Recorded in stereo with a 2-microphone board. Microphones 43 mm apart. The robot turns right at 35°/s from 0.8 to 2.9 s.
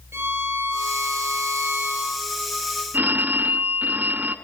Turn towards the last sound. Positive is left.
turn(degrees=-45)  # may be behind; listen again after turning